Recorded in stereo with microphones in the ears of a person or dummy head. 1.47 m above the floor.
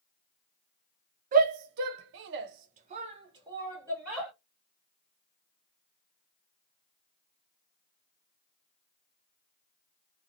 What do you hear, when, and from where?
1.3 s a shout: 45° right (ahead or behind), 0.8 m; by 4.3 s 10° right (ahead or behind), 1.4 m